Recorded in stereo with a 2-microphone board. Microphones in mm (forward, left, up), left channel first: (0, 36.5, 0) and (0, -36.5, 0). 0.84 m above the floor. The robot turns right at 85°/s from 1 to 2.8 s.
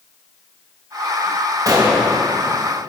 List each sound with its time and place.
1.6 s a gunshot: 115° right, 0.9 m; by 2.2 s 70° right, 0.9 m